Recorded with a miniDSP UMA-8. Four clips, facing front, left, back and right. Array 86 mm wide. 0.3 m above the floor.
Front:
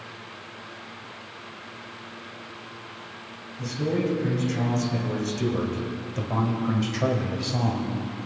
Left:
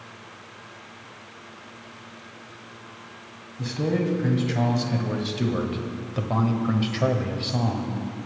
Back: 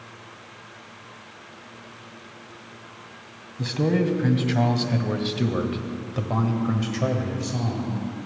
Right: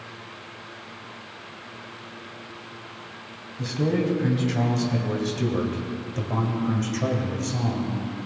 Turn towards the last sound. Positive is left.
turn(degrees=50)